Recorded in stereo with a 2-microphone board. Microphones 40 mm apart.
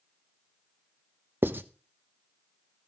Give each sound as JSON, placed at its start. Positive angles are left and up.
{"t": 1.4, "sound": "writing", "side_deg": -60, "distance_m": 0.9}